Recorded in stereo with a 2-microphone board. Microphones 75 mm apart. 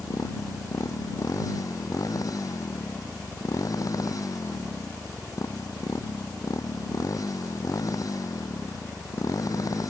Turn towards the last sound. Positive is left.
turn(degrees=50)  # may be behind; listen again after turning